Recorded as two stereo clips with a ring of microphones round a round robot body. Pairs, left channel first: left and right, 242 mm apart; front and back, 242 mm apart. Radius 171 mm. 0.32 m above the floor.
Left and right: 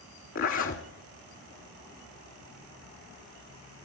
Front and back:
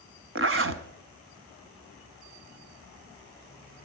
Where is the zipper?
145° left, 1.3 m.